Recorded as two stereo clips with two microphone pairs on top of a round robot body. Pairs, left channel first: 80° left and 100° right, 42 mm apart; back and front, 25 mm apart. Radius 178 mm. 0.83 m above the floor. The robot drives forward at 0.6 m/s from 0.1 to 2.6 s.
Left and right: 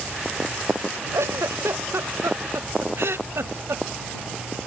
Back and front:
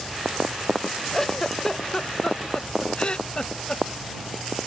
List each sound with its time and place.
1.1 s a giggle: 105° right; by 3.8 s 125° right